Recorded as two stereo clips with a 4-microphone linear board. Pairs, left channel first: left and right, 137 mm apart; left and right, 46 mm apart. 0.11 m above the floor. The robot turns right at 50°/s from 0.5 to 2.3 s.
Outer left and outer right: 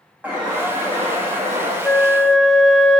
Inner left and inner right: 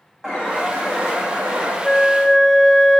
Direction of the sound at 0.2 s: 170° right.